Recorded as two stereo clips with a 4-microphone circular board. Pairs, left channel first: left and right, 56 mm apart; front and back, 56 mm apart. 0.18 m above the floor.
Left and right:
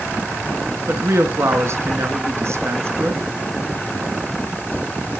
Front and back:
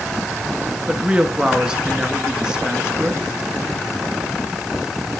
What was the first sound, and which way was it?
A woman speaking, 110° right.